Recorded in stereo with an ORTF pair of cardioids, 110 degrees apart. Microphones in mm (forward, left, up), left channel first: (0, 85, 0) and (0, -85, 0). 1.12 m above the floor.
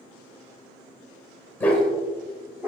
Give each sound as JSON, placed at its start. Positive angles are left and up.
{"t": 1.6, "sound": "a dog barking", "azimuth_deg": 10, "distance_m": 2.0}